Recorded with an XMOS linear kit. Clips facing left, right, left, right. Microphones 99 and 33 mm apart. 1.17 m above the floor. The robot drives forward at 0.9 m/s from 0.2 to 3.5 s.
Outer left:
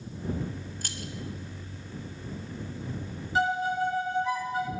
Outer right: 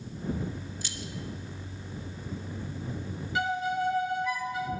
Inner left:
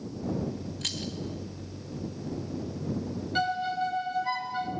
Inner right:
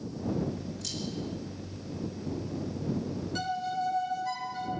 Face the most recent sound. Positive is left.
turn(degrees=40)  # may be behind; listen again after turning